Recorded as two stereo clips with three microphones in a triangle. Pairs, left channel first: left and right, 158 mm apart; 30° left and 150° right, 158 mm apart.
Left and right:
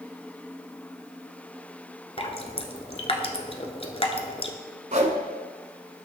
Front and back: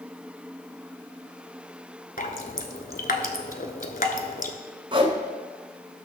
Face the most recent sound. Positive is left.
turn(degrees=-105)